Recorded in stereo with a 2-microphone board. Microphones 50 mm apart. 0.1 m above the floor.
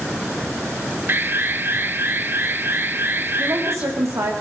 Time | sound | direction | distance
1.1 | an alarm | 45° right (ahead or behind) | 1.5 m
3.4 | a woman speaking | 75° right (ahead or behind) | 6.5 m